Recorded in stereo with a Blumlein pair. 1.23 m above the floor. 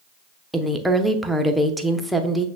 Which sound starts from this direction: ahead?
A woman speaking, at 0.5 s.